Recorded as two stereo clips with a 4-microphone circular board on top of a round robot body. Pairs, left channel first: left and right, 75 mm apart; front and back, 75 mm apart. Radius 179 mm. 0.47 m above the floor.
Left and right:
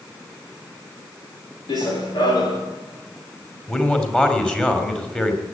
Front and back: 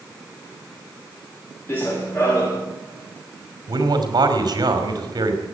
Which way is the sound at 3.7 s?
165° left.